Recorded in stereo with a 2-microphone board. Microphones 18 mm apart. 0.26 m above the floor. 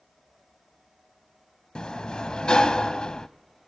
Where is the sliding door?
55° left (ahead or behind), 0.7 m.